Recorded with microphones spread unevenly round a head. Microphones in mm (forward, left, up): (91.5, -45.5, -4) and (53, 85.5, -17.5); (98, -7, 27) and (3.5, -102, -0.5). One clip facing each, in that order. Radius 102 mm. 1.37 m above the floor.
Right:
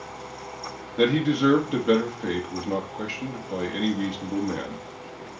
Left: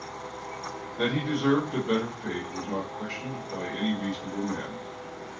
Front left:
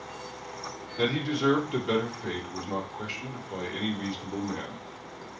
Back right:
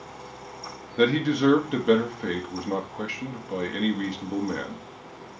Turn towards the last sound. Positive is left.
turn(degrees=-110)